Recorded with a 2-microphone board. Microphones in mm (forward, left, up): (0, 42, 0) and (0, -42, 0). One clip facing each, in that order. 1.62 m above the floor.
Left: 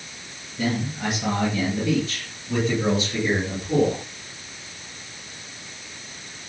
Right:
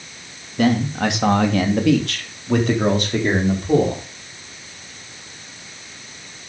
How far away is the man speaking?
About 2.5 m.